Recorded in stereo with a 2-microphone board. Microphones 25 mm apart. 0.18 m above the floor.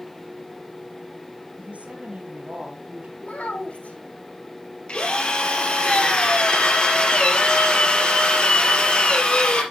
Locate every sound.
1.6 s a woman speaking: 65° right (ahead or behind), 4.5 m; by 3.1 s 60° right (ahead or behind), 4 m
3.2 s a child speaking: 70° left (ahead or behind), 3.5 m
4.9 s a drill: 40° left (ahead or behind), 3.5 m